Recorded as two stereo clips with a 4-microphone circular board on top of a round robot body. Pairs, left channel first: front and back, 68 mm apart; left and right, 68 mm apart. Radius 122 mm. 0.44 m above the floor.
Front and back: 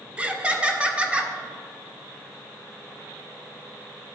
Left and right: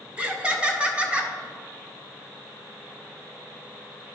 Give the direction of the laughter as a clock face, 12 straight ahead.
4 o'clock.